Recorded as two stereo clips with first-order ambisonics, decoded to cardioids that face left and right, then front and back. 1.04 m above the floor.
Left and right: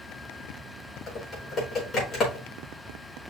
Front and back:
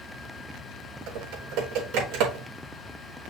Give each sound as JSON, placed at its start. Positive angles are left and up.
{"t": 1.1, "sound": "typing on a keyboard", "azimuth_deg": 150, "distance_m": 4.5}